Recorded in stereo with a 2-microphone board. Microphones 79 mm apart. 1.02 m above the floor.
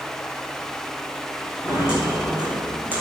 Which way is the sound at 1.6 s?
10° right (ahead or behind).